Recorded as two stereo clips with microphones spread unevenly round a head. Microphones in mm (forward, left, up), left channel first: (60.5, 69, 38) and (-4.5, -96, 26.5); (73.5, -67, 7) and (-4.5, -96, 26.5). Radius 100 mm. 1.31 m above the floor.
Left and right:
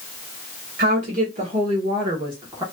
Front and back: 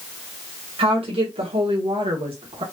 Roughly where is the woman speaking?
Behind right.